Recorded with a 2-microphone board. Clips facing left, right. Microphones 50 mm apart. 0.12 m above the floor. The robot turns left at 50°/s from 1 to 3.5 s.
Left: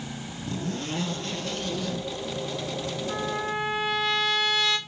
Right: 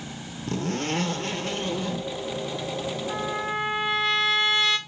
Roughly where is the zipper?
Behind right.